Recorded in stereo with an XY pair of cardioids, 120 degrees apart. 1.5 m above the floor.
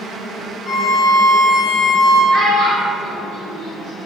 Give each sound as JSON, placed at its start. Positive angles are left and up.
{"t": 0.7, "sound": "a violin", "azimuth_deg": 30, "distance_m": 0.9}
{"t": 2.3, "sound": "a child speaking", "azimuth_deg": -30, "distance_m": 1.7}